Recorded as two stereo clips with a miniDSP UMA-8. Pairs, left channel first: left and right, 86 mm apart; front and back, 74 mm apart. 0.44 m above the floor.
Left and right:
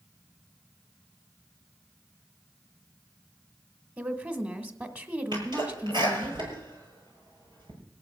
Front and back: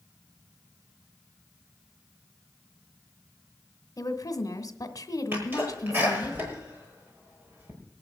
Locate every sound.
4.0 s a woman speaking: 25° right, 1.8 m
5.3 s a sneeze: 115° right, 9 m